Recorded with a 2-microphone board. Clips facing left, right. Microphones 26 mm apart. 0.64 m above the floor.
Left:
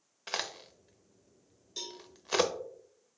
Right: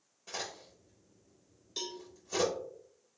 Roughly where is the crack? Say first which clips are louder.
Left 5 dB; left.